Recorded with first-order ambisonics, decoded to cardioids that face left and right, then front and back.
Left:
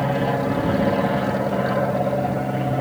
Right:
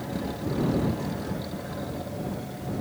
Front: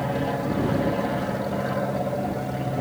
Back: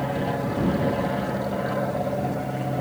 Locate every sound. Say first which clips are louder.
0.0 s an aircraft: left 12 dB, even; 90° left; by 2.8 s 95° left